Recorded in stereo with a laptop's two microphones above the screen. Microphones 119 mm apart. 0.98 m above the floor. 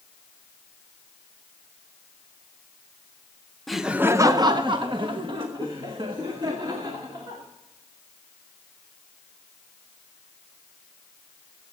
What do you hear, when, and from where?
3.7 s laughter: centre (ahead or behind), 0.6 m; by 7.4 s 40° right (ahead or behind), 3 m